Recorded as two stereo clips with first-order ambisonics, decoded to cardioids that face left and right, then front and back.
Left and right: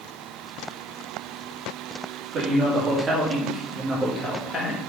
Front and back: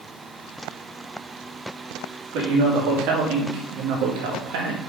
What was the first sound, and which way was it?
A man speaking, 150° right.